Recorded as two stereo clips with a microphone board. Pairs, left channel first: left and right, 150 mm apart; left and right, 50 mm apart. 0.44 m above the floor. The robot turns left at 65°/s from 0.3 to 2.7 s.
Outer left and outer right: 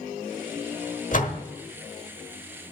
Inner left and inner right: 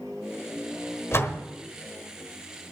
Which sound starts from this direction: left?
A door slam, at 1.1 s.